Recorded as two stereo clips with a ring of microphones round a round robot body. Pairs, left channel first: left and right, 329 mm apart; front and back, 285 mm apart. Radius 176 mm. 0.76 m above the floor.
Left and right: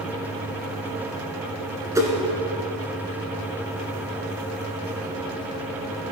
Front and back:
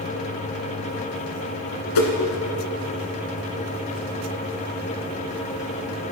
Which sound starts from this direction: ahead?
A whoosh, at 1.9 s.